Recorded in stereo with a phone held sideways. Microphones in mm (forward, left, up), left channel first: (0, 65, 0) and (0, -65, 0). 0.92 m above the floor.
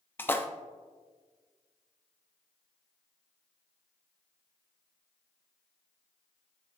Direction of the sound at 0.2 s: 15° left (ahead or behind).